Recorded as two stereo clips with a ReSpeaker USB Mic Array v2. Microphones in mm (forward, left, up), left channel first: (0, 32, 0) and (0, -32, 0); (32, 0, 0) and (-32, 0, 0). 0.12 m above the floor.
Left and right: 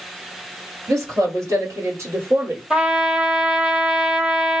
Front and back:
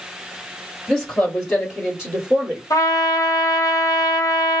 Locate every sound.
0.9 s a woman speaking: 85° right, 1.9 m; by 2.6 s 125° right, 1.5 m
2.7 s a trumpet: 15° right, 0.9 m